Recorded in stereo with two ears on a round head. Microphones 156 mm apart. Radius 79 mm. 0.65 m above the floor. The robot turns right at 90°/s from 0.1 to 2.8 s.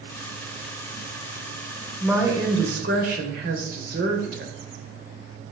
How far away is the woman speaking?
About 3 m.